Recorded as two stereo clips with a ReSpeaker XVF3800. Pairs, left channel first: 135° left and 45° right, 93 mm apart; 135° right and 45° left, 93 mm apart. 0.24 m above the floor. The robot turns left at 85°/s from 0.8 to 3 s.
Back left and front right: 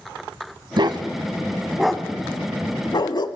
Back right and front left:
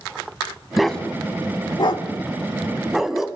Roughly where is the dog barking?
Ahead right.